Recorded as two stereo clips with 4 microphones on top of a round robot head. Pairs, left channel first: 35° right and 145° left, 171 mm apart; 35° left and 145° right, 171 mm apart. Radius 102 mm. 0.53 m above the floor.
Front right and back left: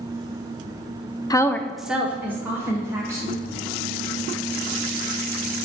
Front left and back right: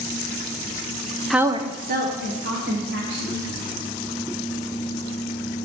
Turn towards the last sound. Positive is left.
turn(degrees=-140)